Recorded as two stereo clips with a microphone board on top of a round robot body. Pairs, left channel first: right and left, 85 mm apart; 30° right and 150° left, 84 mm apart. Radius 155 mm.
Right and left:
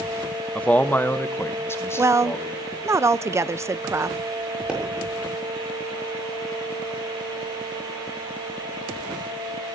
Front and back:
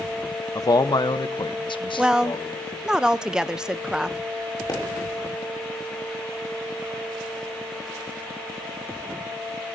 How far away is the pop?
About 6.5 m.